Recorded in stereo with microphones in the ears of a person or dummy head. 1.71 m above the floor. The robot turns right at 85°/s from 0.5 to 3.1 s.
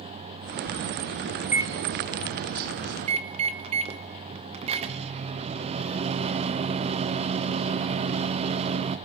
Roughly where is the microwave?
Behind.